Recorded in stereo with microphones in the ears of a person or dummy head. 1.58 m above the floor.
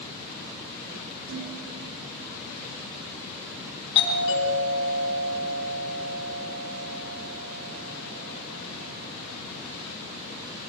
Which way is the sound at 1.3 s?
75° right (ahead or behind).